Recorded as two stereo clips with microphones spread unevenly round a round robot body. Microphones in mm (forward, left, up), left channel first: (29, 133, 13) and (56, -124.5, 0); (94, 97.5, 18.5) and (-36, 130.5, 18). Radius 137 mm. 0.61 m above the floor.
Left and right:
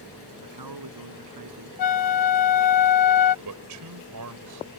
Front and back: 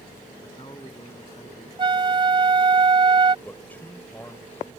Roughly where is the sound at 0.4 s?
Right.